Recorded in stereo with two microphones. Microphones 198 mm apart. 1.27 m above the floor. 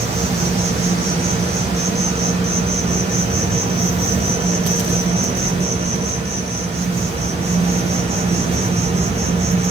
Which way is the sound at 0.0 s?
30° right (ahead or behind).